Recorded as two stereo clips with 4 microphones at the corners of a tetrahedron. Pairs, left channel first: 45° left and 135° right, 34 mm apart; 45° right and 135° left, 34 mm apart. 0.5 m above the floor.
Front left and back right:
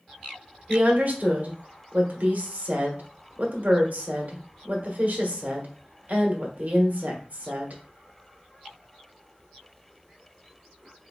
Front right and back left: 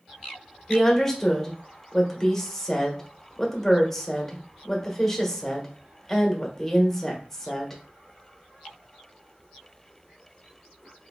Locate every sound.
0.7 s a woman speaking: 125° right, 1.2 m